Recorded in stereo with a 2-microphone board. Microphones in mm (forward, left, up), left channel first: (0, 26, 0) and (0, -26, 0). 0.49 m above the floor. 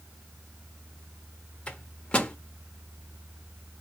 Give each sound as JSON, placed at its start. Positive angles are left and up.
{"t": 1.7, "sound": "a microwave", "side_deg": 20, "distance_m": 0.9}